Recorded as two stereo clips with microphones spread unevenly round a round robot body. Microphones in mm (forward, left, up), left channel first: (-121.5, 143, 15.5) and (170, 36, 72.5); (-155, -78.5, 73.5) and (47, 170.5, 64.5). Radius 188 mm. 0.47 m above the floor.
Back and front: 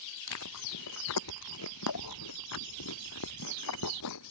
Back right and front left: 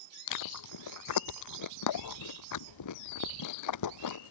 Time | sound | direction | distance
0.3 | chewing | 155° right | ?